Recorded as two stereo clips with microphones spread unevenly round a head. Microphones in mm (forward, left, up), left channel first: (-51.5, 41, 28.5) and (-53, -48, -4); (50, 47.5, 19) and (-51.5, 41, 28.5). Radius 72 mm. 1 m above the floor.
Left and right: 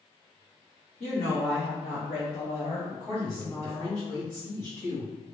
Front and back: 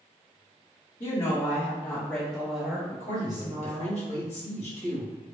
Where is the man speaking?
5° left, 1.5 m.